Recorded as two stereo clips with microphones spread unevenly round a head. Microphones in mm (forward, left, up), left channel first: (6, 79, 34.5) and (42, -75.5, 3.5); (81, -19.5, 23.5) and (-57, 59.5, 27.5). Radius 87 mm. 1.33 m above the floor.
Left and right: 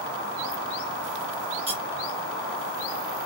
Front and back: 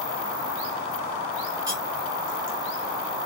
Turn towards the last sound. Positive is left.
turn(degrees=-140)